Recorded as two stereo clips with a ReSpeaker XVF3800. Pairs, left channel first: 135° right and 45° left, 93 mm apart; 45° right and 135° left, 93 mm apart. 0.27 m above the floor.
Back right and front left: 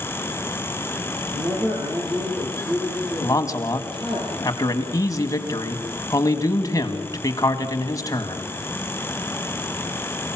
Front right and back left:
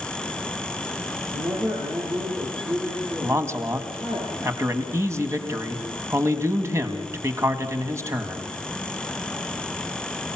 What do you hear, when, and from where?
1.3 s a man speaking: 90° left, 6.5 m
3.2 s a man speaking: 175° right, 2.0 m